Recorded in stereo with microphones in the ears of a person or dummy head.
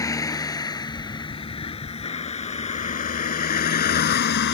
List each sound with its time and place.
0.0 s a vehicle: 15° left (ahead or behind); by 4.5 s 55° left (ahead or behind)